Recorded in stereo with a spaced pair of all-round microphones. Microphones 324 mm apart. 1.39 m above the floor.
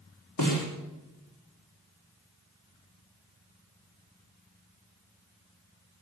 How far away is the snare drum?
About 4 m.